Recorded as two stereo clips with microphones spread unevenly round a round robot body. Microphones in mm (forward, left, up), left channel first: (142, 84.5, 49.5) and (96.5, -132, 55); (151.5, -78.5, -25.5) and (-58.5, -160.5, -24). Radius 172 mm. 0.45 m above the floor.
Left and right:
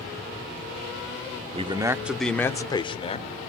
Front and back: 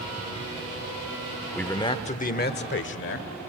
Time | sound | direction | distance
1.5 | a man speaking | 60° right | 0.9 m